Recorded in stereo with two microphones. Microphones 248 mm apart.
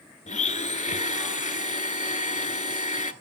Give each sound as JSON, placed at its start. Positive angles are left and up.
{"t": 0.3, "sound": "a blender", "side_deg": 30, "distance_m": 0.7}